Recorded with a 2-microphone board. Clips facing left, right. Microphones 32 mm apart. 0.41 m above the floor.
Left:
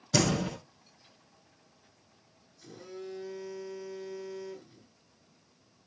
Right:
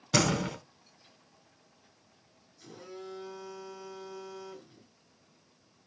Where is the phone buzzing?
65° right (ahead or behind), 2.5 m.